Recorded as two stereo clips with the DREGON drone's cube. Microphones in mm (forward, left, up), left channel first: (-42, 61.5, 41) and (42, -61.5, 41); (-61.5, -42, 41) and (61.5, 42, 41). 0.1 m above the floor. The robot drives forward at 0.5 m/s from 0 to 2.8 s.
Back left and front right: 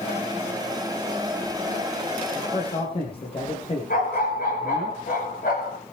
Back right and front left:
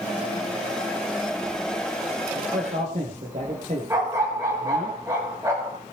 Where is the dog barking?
100° left, 9 m.